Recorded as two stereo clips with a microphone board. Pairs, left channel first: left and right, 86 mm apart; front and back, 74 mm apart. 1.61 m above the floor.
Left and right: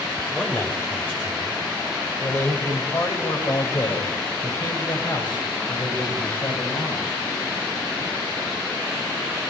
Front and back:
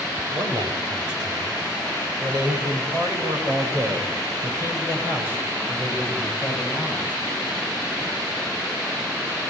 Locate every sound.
0.3 s a man speaking: 165° left, 6.5 m; by 7.2 s 110° left, 8 m